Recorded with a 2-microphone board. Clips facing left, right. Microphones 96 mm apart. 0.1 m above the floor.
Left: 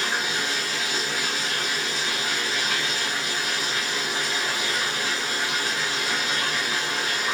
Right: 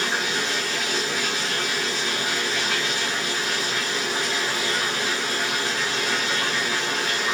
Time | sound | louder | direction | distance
0.0 | running water | right 1 dB | 20° right (ahead or behind) | 3 m